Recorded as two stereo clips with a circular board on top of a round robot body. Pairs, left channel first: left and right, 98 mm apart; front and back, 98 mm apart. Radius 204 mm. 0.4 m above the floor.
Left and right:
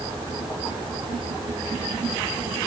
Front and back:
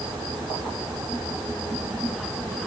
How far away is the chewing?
No chewing in this recording.